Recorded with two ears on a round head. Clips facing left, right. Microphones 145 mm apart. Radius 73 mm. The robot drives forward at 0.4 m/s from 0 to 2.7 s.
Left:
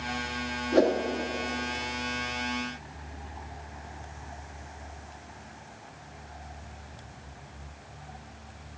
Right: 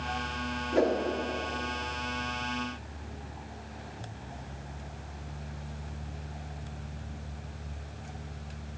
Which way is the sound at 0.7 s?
50° left (ahead or behind).